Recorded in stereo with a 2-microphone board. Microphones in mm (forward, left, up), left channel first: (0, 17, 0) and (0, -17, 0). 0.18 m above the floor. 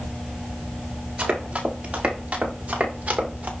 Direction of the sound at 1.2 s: 35° right (ahead or behind).